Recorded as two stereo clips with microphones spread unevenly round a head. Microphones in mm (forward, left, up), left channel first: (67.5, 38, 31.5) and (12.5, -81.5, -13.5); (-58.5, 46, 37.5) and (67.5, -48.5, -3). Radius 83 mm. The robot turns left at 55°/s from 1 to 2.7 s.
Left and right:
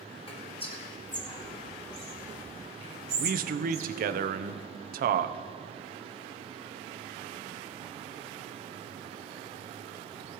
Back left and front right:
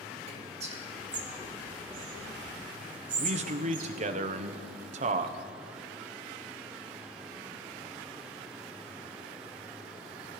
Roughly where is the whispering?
Ahead.